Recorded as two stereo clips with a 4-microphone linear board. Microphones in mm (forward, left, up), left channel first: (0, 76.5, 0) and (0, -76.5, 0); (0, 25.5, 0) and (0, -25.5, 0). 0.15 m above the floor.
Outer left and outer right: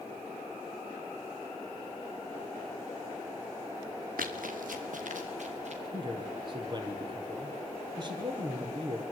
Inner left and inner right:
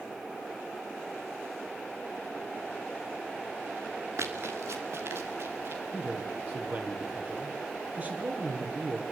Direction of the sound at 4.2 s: 70° right (ahead or behind).